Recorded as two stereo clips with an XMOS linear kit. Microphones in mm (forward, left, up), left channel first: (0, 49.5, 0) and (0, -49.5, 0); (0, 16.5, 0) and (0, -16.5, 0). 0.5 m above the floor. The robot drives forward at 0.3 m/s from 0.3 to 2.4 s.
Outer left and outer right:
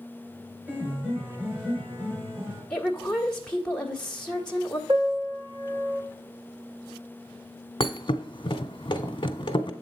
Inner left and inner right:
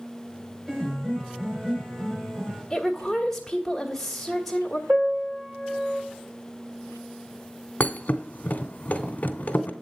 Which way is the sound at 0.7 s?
20° right (ahead or behind).